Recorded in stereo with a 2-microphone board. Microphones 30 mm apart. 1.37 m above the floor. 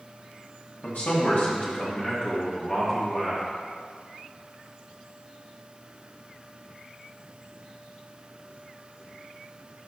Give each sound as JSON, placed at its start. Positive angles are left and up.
{"t": 0.8, "sound": "a man speaking", "side_deg": 75, "distance_m": 1.9}